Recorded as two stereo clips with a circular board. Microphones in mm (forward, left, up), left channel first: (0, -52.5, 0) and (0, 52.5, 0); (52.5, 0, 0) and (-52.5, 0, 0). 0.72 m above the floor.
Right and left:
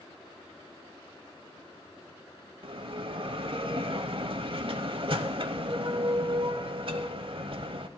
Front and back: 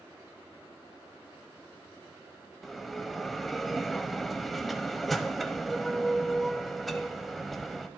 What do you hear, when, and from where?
2.6 s a bell: 90° left, 0.7 m